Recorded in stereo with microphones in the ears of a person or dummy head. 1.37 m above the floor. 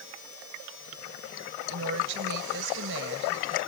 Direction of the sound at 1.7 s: 75° right (ahead or behind).